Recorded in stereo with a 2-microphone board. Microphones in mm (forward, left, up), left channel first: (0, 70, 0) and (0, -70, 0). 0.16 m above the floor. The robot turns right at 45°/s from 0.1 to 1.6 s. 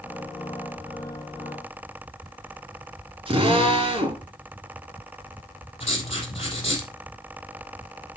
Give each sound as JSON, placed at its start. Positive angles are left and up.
{"t": 3.3, "sound": "a drill", "side_deg": -40, "distance_m": 2.5}
{"t": 5.8, "sound": "writing", "side_deg": 45, "distance_m": 2.5}